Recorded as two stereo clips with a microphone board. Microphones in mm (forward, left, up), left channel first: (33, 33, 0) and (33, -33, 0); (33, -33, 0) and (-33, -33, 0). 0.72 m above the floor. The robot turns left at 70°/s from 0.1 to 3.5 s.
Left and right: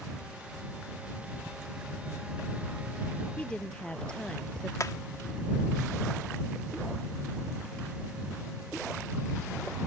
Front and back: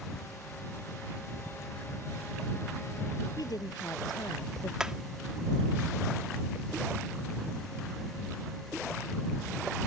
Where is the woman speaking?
20° left; by 4.7 s 10° left.